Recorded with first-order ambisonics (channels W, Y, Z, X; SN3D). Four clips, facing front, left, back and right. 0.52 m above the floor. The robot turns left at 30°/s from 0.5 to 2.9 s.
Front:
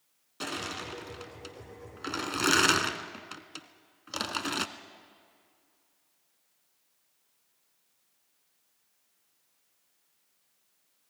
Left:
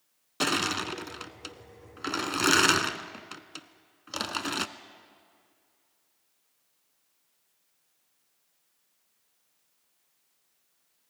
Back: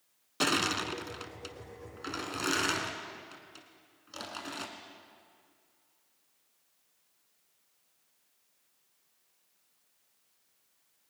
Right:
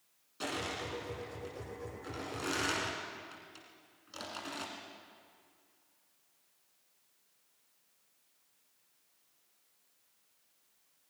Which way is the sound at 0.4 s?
125° left.